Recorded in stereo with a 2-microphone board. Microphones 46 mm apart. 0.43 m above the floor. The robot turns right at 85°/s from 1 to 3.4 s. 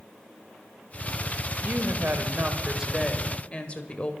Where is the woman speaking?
115° right, 1.7 m; by 4.1 s 35° left, 1.7 m.